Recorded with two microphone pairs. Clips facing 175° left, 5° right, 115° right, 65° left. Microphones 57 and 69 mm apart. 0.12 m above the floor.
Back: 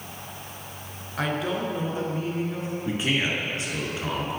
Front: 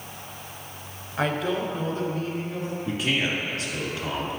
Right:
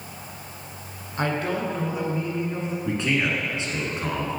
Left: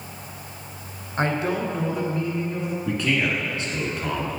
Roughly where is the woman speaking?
Left.